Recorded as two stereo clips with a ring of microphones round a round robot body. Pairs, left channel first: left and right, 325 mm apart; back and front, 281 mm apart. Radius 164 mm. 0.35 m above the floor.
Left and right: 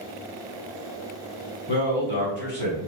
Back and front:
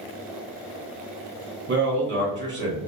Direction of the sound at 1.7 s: 40° left.